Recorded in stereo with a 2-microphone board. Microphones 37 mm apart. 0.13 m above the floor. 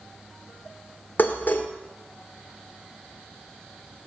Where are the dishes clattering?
50° left (ahead or behind), 1.6 m.